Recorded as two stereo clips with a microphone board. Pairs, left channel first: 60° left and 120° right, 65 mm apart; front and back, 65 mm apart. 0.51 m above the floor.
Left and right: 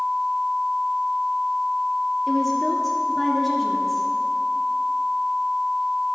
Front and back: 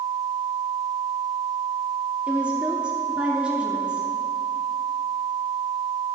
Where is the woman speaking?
145° left, 1.0 m.